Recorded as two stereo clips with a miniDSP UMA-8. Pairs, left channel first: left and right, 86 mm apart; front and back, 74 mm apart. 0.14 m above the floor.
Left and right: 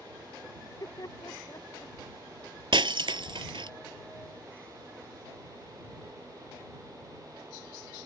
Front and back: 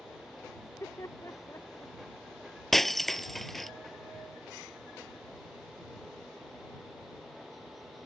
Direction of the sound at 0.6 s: 50° left.